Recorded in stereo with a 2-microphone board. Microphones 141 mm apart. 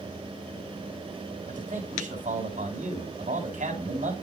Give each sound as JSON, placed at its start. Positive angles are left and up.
{"t": 1.5, "sound": "a man speaking", "side_deg": -60, "distance_m": 2.5}